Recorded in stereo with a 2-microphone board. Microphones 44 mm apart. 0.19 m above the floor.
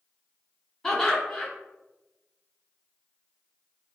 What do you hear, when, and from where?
0.8 s laughter: 10° left (ahead or behind), 1.3 m